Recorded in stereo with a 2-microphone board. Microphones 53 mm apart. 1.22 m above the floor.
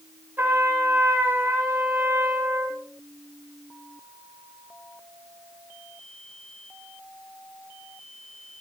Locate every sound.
0.4 s a trumpet: 40° right (ahead or behind), 4.5 m